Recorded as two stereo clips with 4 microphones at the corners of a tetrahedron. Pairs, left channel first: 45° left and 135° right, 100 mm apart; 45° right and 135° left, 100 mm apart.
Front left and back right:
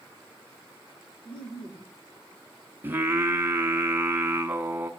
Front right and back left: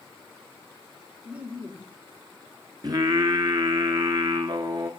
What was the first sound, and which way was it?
Laughter, 60° left.